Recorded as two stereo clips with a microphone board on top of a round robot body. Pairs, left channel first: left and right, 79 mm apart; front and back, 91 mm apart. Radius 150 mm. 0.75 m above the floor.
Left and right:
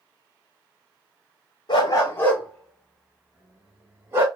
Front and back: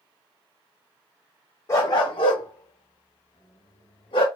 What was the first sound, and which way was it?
A dog barking, 60° left.